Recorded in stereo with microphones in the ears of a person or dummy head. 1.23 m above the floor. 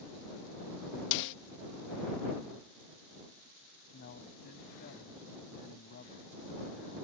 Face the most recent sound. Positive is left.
turn(degrees=45)  # may be behind; listen again after turning